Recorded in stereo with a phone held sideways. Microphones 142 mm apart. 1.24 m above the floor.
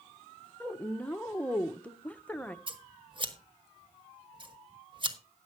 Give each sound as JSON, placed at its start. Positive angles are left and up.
{"t": 0.6, "sound": "a woman speaking", "side_deg": 10, "distance_m": 0.7}
{"t": 2.7, "sound": "scissors", "side_deg": -35, "distance_m": 1.2}